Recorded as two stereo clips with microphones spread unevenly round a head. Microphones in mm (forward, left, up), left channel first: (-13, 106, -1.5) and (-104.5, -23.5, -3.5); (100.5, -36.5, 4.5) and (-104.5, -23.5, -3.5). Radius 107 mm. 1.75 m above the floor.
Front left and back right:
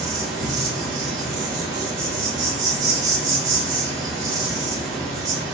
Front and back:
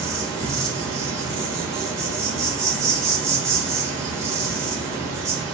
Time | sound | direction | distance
0.0 | an insect | 105° right | 0.9 m